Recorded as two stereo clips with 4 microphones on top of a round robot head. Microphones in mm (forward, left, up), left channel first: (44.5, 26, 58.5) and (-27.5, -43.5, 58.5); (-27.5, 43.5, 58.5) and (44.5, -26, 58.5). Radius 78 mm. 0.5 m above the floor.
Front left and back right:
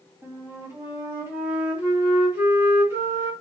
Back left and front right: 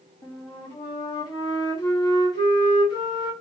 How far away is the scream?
I don't hear a scream.